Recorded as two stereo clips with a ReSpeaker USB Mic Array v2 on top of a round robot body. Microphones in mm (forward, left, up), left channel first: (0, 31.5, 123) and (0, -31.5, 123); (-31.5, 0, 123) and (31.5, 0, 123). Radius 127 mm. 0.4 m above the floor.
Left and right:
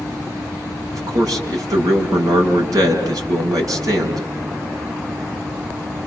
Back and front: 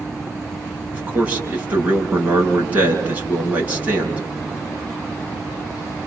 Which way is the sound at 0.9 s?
65° right.